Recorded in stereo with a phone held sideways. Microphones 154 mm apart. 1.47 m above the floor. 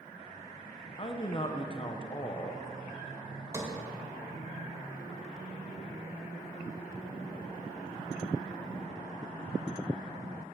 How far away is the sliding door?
About 1.5 m.